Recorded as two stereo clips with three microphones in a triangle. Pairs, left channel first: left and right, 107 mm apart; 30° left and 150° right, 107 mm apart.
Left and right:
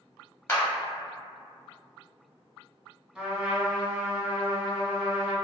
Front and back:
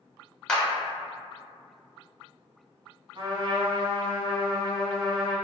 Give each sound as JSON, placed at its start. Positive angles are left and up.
{"t": 0.5, "sound": "a clap", "azimuth_deg": 100, "distance_m": 0.9}
{"t": 3.1, "sound": "a trumpet", "azimuth_deg": -170, "distance_m": 0.9}